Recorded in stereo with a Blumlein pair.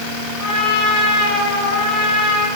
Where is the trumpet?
40° left, 5.5 m.